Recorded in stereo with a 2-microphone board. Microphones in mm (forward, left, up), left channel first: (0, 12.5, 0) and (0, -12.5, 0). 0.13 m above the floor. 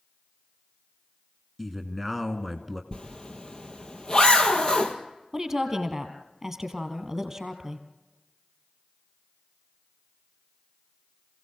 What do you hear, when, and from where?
1.6 s a man speaking: 5° left (ahead or behind), 1.3 m
2.9 s a zipper: 35° left (ahead or behind), 1.9 m
5.3 s a woman speaking: 15° right (ahead or behind), 2.5 m